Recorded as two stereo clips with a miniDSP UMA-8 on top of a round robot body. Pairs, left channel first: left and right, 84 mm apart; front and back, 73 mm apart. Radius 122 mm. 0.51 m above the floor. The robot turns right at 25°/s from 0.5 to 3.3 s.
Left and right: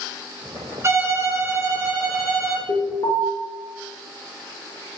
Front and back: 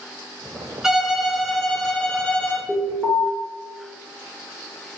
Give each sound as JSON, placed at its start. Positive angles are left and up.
{"t": 0.8, "sound": "a violin", "azimuth_deg": -105, "distance_m": 0.7}
{"t": 2.7, "sound": "an alarm", "azimuth_deg": 75, "distance_m": 0.8}